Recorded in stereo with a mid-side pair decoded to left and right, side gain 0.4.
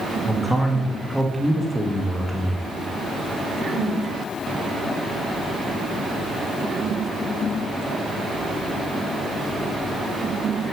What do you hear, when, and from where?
0.2 s a man speaking: straight ahead, 1.4 m